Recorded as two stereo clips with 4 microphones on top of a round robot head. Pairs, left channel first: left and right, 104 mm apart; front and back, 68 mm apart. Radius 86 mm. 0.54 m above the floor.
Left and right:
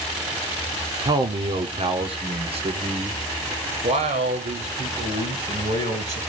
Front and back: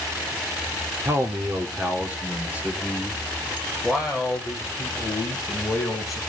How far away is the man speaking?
About 1.1 m.